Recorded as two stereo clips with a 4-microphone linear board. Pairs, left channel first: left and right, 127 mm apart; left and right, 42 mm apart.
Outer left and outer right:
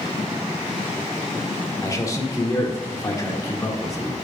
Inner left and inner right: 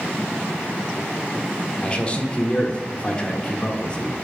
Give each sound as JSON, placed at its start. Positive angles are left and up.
{"t": 1.8, "sound": "a man speaking", "side_deg": 25, "distance_m": 1.4}